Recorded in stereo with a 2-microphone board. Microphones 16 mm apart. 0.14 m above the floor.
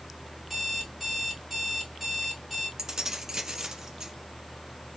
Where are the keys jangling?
30° right (ahead or behind), 0.8 m.